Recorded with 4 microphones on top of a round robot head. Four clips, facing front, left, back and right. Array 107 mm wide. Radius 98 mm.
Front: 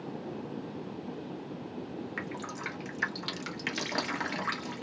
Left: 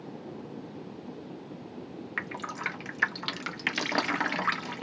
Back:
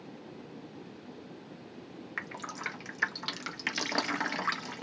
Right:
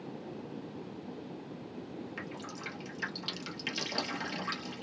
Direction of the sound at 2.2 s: 100° left.